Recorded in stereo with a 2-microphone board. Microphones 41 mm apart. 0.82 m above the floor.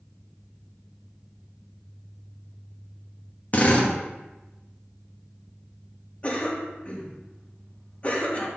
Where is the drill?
45° left (ahead or behind), 1.1 m.